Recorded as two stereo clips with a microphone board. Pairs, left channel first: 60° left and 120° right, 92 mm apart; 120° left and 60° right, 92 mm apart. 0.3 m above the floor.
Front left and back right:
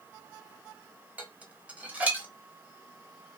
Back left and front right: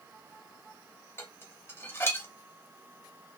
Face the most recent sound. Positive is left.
turn(degrees=175)